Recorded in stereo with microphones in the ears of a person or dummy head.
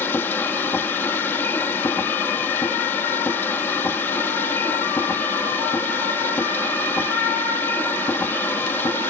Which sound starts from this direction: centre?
A machine running, at 0.0 s.